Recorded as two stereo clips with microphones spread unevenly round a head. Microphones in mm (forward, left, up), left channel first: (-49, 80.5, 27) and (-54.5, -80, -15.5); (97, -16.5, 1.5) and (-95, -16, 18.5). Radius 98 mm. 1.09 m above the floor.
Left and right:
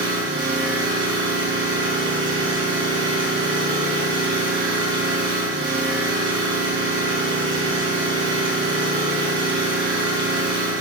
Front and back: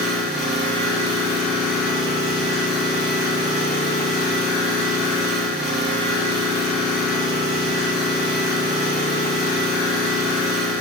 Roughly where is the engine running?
Right.